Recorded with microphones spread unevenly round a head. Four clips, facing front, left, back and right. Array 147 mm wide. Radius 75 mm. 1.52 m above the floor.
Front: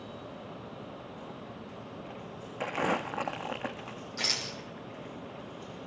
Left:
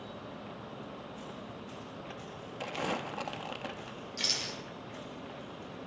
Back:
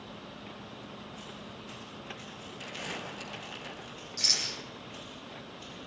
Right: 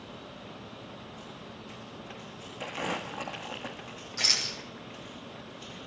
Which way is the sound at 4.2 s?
20° right.